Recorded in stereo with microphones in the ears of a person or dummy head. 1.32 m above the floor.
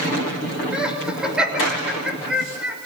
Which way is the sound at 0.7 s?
5° right (ahead or behind).